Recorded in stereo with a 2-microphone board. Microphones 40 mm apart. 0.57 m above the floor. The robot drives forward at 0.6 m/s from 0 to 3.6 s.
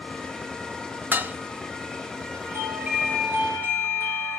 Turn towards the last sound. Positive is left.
turn(degrees=-65)  # may be behind; listen again after turning